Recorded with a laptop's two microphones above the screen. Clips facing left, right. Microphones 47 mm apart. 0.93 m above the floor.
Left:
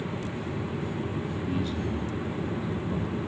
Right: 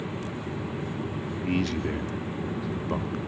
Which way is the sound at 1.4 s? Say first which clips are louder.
Right 6 dB; 75° right (ahead or behind).